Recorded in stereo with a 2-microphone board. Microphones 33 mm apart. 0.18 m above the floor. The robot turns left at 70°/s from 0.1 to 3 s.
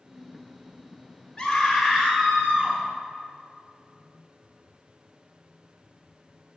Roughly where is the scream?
Ahead.